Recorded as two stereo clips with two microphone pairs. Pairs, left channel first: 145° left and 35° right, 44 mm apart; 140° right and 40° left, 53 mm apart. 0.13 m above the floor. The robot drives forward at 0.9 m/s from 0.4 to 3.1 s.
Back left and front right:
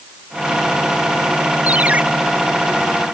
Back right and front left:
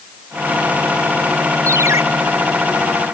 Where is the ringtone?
20° left.